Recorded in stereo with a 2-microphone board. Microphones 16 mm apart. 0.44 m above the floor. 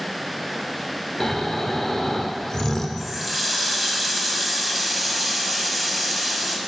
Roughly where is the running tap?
Centre.